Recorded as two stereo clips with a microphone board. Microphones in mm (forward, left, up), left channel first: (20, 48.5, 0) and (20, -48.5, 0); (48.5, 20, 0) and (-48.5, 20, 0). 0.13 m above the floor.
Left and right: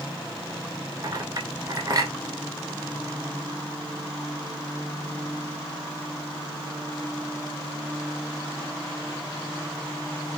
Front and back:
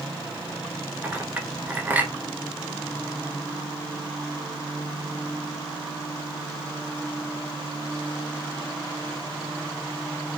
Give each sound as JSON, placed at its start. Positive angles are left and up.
{"t": 1.0, "sound": "a clink", "azimuth_deg": -120, "distance_m": 1.1}